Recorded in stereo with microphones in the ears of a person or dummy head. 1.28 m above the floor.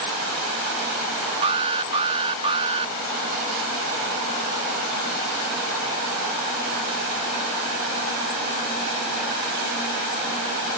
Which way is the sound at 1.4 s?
25° right (ahead or behind).